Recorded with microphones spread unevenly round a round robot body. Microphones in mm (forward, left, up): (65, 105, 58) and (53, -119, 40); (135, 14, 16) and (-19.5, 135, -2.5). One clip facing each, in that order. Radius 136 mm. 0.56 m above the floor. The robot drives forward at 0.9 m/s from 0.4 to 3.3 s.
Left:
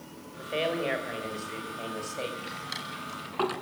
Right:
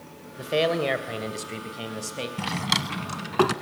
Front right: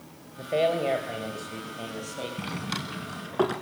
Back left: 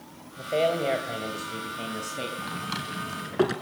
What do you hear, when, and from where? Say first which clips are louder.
0.4 s a man speaking: right 6 dB, even; 125° right, 2.5 m; by 2.3 s 150° right, 4 m
2.4 s a drawer: right 11 dB, front right 2 dB; 105° right, 0.9 m; by 3.5 s 140° right, 1.4 m